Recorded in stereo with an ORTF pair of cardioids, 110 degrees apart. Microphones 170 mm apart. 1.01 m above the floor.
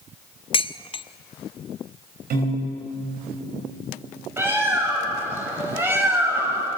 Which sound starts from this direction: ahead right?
A piano, at 2.3 s.